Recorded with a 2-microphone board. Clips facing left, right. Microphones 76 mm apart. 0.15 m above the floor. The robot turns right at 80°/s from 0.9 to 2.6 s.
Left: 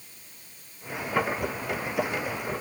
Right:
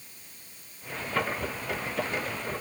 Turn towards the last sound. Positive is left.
No sound to turn to.